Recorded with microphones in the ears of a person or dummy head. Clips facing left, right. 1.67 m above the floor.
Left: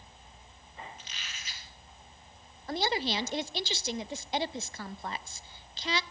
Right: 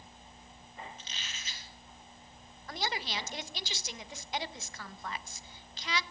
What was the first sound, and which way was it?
A squeak, 35° right (ahead or behind).